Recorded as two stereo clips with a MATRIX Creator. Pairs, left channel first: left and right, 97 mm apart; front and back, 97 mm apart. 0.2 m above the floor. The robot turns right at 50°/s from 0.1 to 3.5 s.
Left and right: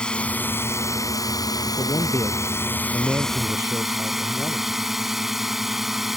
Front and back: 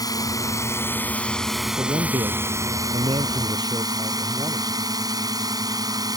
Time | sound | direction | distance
0.0 | a drone | 15° left | ?
1.8 | a man speaking | 130° left | ?